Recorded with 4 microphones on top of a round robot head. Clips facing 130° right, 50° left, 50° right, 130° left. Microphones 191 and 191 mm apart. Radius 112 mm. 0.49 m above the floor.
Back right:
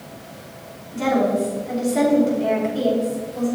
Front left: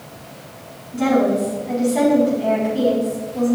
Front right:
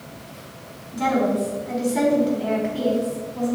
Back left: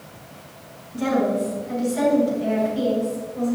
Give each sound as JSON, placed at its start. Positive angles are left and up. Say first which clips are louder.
{"t": 0.9, "sound": "a woman speaking", "louder": "front left 3 dB, even", "azimuth_deg": -45, "distance_m": 5.5}